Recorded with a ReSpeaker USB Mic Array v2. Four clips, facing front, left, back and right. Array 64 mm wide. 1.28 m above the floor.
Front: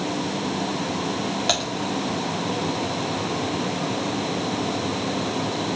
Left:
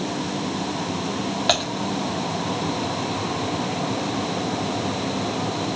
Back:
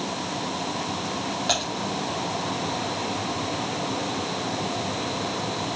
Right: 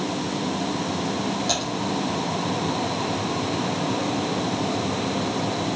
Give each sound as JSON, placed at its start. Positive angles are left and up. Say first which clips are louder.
{"t": 1.5, "sound": "typing on a keyboard", "louder": "left 4 dB, even", "azimuth_deg": 75, "distance_m": 2.5}